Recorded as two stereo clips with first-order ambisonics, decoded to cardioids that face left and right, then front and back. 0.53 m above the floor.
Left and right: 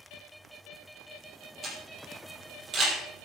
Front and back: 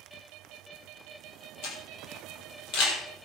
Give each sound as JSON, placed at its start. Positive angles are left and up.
{"t": 1.6, "sound": "a camera shutter", "azimuth_deg": -25, "distance_m": 8.0}